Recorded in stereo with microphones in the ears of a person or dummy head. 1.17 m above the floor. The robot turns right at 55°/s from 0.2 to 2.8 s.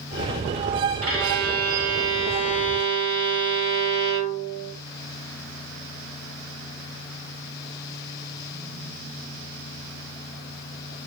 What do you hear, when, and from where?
1.0 s a violin: 85° right, 1.4 m; by 4.7 s 15° left, 1.4 m